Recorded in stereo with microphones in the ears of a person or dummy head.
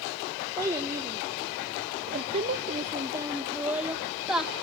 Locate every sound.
0.6 s a child speaking: 15° right (ahead or behind), 1.7 m; by 4.5 s centre (ahead or behind), 1.9 m